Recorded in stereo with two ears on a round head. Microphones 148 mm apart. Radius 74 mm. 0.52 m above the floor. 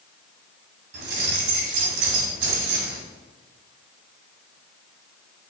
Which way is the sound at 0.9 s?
75° right (ahead or behind).